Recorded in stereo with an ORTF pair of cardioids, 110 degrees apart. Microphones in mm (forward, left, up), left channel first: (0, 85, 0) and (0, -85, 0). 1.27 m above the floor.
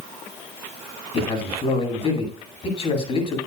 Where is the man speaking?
40° left, 9 m.